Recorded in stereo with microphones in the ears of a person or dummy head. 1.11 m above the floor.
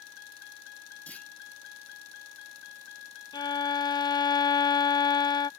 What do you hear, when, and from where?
0.0 s a vehicle: 65° left (ahead or behind)
1.1 s a clunk: 5° left (ahead or behind)
3.3 s a violin: 25° left (ahead or behind)